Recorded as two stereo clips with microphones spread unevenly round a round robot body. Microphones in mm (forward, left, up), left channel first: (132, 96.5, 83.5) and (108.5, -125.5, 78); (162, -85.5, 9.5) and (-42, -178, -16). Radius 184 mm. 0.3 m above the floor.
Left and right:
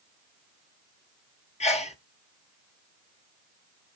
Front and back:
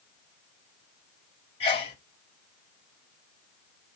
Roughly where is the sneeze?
Left.